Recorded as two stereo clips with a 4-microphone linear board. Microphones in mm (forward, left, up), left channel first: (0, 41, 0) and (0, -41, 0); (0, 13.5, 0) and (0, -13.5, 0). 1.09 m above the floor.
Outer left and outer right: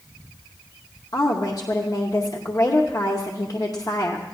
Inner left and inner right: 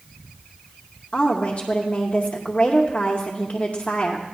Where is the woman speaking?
50° left (ahead or behind), 0.9 m.